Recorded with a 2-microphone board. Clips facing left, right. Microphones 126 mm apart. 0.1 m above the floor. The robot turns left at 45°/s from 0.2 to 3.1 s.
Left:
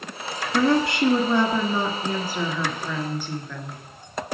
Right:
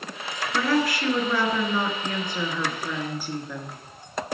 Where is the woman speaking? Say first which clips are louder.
Left 4 dB; 25° left (ahead or behind), 1.1 m; by 3.8 s 10° right (ahead or behind), 1.1 m.